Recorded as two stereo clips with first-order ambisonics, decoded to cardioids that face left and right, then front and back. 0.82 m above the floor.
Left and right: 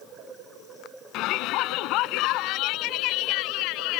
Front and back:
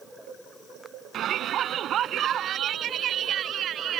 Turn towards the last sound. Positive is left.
turn(degrees=120)